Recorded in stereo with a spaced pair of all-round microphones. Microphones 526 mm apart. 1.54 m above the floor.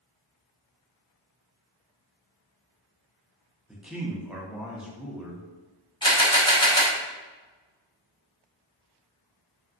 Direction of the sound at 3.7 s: Centre (ahead or behind).